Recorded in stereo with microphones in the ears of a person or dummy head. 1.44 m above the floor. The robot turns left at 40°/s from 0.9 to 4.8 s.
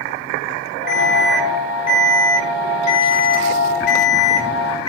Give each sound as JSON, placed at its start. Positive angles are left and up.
{"t": 0.9, "sound": "an alarm", "azimuth_deg": 180, "distance_m": 9.0}